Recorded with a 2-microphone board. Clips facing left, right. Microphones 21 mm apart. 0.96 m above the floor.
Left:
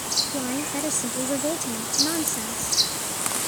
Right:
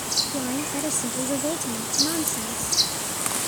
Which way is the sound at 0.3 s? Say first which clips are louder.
Even; 10° left (ahead or behind).